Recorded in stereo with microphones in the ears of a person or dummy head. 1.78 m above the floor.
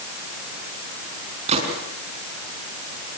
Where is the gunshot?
35° right (ahead or behind), 5 m.